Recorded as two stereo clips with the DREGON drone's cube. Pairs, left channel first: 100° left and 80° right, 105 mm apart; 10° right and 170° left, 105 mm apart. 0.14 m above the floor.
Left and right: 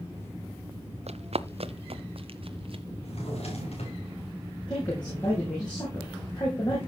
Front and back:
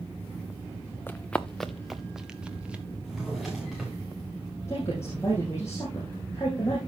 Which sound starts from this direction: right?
Running footsteps, at 1.1 s.